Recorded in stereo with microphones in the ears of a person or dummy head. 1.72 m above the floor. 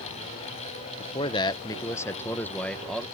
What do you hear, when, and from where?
1.0 s a man speaking: 30° left (ahead or behind); by 3.1 s centre (ahead or behind)